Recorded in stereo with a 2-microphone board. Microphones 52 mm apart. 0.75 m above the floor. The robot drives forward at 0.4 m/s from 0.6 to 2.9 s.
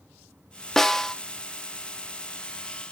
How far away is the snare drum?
About 0.7 m.